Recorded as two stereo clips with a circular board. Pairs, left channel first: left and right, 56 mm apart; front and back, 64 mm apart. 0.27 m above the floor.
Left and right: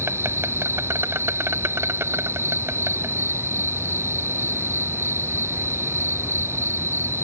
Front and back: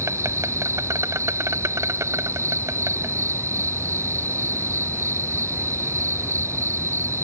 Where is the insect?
135° right.